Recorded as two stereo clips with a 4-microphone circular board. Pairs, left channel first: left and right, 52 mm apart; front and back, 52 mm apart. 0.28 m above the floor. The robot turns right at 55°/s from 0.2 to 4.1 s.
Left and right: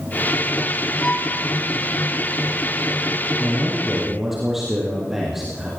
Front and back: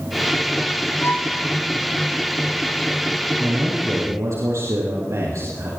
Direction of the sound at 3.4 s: 145° left.